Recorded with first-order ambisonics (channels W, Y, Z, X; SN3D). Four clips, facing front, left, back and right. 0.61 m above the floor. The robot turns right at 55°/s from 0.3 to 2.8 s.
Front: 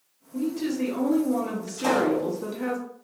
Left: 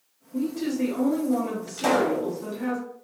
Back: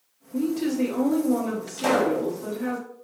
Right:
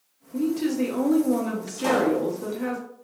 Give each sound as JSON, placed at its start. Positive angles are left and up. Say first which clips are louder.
{"t": 0.3, "sound": "a woman speaking", "louder": "right 3 dB, back 3 dB", "azimuth_deg": -155, "distance_m": 0.6}
{"t": 1.8, "sound": "a pop", "louder": "even, back 1 dB", "azimuth_deg": 120, "distance_m": 1.1}